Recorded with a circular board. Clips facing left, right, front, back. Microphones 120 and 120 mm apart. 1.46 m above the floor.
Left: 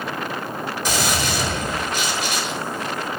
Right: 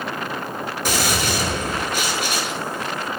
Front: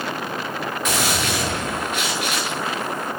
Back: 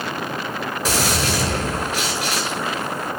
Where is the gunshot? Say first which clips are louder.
Right 1 dB, back 2 dB; 125° right, 7.5 m.